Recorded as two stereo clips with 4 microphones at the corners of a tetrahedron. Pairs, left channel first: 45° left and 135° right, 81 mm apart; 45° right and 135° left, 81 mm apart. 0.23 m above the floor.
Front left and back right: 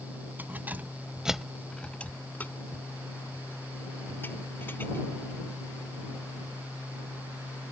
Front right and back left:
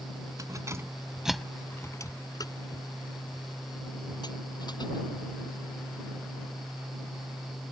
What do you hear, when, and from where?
0.4 s keys jangling: 165° left; by 5.0 s 20° right